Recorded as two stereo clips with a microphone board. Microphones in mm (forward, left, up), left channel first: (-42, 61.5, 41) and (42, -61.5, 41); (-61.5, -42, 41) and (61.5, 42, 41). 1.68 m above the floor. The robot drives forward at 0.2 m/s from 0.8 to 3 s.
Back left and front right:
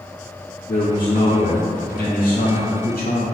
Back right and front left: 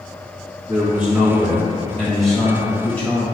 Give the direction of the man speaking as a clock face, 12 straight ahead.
8 o'clock.